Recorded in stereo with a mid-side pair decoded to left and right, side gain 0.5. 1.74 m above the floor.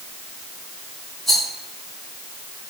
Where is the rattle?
Straight ahead, 2.5 m.